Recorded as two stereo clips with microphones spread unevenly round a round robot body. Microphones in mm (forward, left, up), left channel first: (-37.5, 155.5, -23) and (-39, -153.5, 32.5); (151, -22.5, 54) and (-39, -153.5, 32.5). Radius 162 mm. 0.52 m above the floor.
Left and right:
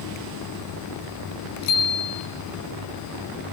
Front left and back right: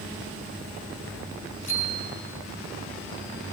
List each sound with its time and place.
1.6 s a bicycle bell: 100° left, 6 m